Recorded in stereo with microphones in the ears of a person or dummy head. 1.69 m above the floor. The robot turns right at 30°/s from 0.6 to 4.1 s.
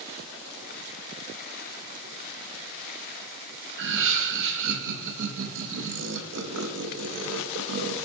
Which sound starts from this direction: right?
Laughter, at 3.8 s.